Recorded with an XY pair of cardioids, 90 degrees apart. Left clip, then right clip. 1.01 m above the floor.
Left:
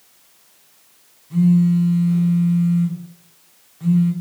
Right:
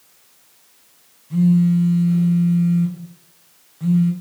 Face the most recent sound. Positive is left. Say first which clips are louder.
# even
turn(degrees=-10)